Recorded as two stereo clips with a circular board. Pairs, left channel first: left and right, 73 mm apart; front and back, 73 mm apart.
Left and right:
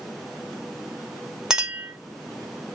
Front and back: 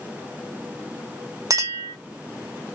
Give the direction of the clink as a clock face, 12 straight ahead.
6 o'clock.